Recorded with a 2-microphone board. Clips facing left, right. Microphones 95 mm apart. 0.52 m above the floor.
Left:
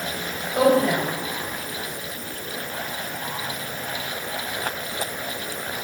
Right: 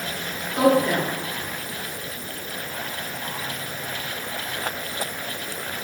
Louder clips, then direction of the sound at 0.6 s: Even; 50° left (ahead or behind).